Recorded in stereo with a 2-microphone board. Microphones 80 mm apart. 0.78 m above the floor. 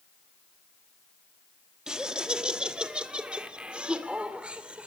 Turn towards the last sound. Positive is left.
turn(degrees=-15)  # may be behind; listen again after turning